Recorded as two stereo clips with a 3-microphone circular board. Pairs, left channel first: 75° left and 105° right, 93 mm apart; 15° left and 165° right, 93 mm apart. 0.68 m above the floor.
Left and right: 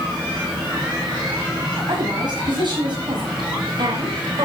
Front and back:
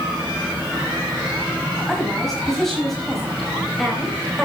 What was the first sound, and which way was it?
A woman speaking, 70° right.